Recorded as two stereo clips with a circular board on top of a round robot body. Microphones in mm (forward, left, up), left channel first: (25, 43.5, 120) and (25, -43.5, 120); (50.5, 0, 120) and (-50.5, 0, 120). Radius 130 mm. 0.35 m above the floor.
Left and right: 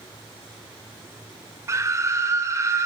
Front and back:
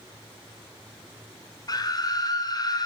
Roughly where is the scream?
Ahead right.